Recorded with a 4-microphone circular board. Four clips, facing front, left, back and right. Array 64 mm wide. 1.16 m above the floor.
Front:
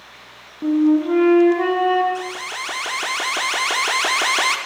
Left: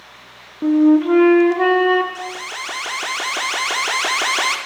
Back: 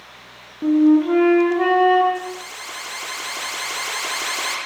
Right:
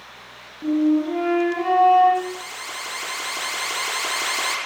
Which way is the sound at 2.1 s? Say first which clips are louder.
Even, front 3 dB; 40° left.